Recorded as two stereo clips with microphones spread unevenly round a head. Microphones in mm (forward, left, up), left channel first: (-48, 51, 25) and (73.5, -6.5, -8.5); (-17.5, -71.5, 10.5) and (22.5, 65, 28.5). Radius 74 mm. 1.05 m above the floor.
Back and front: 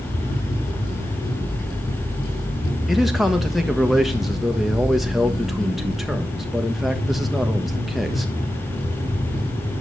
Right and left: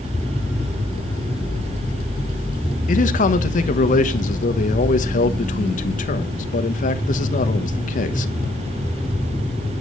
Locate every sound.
2.9 s a man speaking: 105° right, 1.3 m